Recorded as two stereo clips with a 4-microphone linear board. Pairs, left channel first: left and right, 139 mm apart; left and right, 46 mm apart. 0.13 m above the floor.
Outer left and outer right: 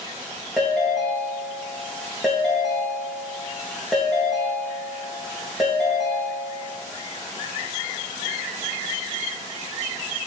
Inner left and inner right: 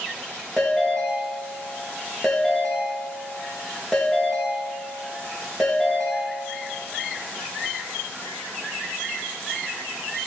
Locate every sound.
0.6 s a ringtone: centre (ahead or behind), 4.5 m